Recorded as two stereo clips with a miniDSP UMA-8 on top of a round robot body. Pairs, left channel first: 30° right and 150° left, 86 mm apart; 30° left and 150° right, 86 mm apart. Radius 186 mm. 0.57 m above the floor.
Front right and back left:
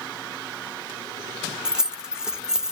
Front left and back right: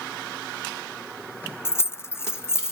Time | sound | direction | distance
1.6 | keys jangling | 70° left | 0.6 m